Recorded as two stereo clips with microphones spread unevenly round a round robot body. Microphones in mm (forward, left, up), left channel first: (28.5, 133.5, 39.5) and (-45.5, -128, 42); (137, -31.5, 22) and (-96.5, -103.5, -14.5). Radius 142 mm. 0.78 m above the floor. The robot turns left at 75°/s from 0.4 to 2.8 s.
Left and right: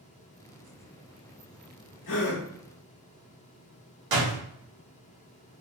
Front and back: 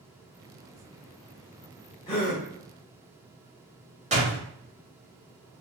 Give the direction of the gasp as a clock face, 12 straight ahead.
9 o'clock.